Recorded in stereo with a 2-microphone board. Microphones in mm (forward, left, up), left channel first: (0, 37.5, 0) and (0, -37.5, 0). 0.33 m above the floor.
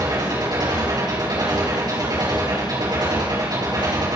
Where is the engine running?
65° right (ahead or behind), 6 m.